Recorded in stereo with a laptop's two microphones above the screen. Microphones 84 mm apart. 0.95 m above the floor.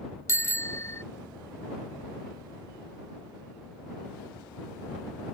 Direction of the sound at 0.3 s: 35° left (ahead or behind).